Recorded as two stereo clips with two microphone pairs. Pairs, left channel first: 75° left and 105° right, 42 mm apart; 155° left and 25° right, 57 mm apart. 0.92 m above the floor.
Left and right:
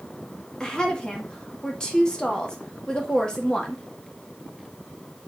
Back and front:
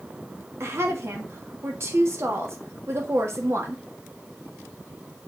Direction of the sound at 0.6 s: 10° left.